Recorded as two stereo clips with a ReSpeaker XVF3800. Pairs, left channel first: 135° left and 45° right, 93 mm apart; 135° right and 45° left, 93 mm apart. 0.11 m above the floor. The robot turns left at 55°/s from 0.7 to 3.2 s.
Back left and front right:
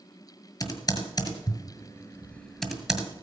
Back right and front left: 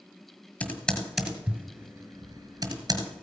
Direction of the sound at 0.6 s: 160° left.